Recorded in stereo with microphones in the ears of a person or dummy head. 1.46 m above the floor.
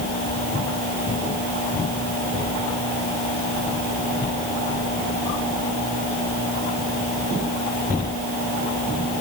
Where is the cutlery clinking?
I don't hear cutlery clinking.